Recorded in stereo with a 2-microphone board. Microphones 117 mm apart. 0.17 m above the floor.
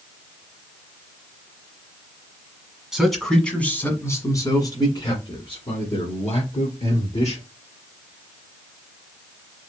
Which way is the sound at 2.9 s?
5° right (ahead or behind).